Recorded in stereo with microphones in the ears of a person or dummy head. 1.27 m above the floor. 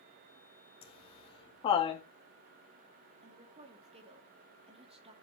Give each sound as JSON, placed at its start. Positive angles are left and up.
{"t": 0.8, "sound": "laughter", "side_deg": 30, "distance_m": 1.8}
{"t": 3.2, "sound": "a woman speaking", "side_deg": -30, "distance_m": 2.5}